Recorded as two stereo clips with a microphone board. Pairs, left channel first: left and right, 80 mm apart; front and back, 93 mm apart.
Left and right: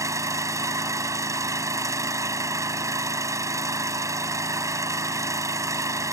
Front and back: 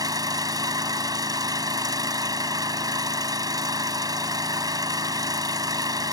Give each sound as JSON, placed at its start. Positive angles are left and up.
{"t": 0.0, "sound": "an engine running", "azimuth_deg": -135}